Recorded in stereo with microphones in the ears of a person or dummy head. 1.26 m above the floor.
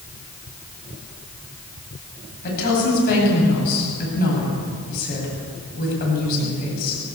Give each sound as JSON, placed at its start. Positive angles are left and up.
{"t": 2.4, "sound": "a woman speaking", "side_deg": 55, "distance_m": 9.0}